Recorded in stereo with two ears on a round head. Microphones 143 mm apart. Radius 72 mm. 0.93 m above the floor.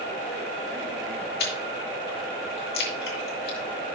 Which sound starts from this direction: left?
Chewing, at 1.4 s.